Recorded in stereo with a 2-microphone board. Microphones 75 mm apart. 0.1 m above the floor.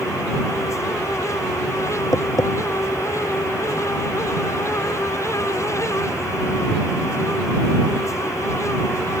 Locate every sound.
2.1 s tapping: 50° left (ahead or behind)